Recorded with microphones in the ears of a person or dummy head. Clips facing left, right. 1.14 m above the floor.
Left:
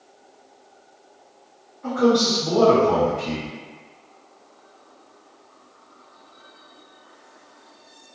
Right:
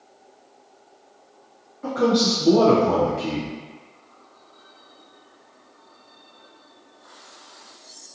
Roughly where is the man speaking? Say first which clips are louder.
Left 2 dB; right.